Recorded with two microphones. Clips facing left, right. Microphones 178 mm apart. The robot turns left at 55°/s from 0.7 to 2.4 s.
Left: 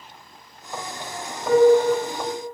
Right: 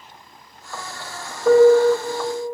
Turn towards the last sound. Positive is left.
turn(degrees=-160)